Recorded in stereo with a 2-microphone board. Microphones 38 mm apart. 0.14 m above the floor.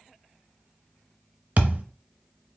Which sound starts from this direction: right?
A thud, at 1.6 s.